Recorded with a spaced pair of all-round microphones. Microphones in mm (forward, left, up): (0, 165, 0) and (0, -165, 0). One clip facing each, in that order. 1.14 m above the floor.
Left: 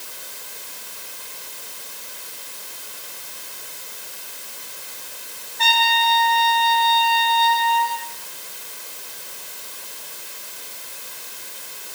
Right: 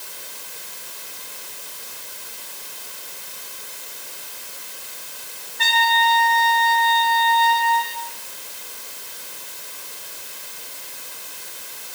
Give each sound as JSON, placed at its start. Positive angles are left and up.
{"t": 5.6, "sound": "a trumpet", "side_deg": -20, "distance_m": 7.0}